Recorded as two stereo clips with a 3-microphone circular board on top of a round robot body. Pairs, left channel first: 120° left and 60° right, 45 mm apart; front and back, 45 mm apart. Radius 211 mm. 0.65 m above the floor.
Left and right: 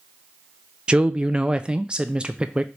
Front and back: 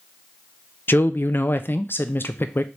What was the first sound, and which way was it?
A man speaking, straight ahead.